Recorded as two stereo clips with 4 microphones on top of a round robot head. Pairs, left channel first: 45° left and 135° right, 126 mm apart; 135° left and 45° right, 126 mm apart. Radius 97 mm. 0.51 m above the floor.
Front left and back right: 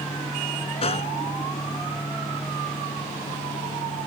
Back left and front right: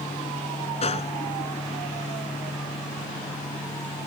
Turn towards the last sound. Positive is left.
turn(degrees=90)